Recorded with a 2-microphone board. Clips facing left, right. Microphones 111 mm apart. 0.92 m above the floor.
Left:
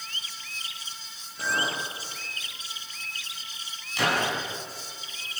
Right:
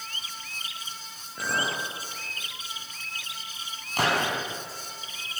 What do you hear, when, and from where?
1.4 s a clink: 85° right, 10 m
4.0 s a gunshot: 45° right (ahead or behind), 6.5 m